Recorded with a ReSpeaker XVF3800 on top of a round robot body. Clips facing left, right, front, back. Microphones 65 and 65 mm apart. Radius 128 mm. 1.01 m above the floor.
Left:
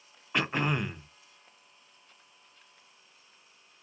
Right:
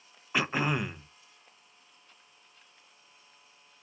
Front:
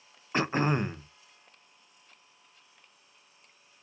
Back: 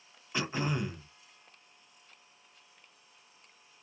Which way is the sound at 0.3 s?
5° right.